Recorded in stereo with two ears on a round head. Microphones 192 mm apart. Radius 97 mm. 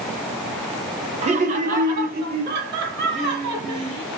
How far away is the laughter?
About 1.0 m.